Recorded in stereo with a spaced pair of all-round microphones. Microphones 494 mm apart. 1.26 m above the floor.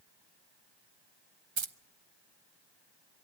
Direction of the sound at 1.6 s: 65° right (ahead or behind).